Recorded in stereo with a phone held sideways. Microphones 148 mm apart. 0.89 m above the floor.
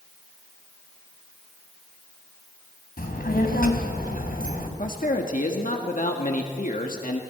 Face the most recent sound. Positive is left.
turn(degrees=65)  # may be behind; listen again after turning